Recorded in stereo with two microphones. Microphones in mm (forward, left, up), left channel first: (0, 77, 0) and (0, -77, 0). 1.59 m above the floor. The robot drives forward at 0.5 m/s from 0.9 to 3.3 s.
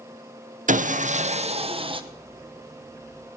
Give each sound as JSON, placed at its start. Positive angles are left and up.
{"t": 0.7, "sound": "sawing", "side_deg": -55, "distance_m": 0.7}